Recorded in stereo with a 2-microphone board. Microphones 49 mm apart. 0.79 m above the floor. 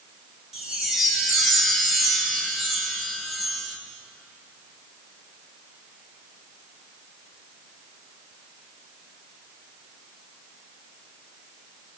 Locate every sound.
0.5 s a chime: 10° right (ahead or behind), 4.5 m